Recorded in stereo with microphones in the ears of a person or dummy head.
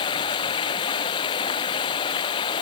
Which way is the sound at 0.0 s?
25° left (ahead or behind).